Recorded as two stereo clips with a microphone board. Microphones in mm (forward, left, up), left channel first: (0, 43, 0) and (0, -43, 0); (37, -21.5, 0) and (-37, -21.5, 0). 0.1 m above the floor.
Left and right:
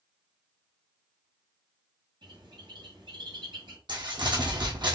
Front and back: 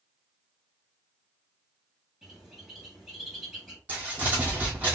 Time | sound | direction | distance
2.2 | a bird | 100° right | 2.5 m
3.9 | crumpling | 110° right | 2.0 m